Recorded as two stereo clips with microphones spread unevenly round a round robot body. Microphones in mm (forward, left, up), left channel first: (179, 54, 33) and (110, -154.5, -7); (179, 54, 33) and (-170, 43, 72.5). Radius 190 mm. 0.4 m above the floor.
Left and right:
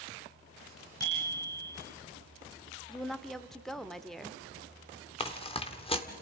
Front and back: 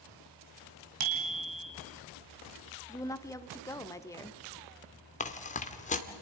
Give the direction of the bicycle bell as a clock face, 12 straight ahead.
7 o'clock.